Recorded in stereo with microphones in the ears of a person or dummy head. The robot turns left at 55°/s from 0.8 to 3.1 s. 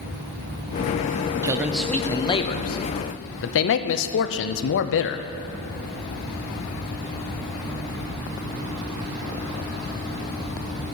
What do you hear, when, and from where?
1.4 s a man speaking: 155° right, 0.5 m; by 5.3 s 110° left, 0.5 m